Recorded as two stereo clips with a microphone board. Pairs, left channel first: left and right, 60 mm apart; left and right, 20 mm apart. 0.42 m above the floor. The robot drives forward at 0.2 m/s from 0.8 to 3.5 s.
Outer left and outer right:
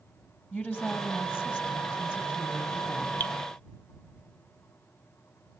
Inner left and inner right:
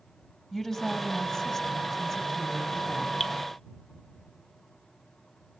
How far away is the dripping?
About 0.9 m.